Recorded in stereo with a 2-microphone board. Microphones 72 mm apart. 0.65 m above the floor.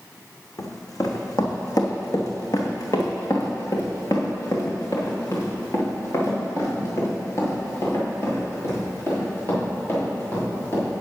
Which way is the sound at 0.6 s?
55° left (ahead or behind).